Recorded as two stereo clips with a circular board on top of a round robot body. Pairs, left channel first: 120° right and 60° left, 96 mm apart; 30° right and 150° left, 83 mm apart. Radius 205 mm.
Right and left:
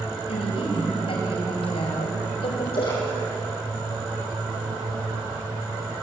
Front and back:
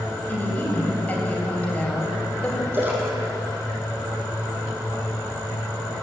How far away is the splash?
About 9.5 m.